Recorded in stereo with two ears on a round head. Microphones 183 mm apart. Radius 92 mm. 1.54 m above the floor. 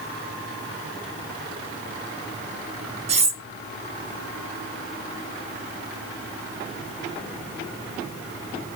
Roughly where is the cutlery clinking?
Right.